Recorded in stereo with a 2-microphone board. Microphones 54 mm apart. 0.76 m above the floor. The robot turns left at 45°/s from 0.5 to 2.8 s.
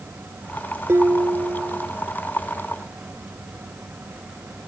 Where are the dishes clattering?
50° right; by 1.9 s 95° right.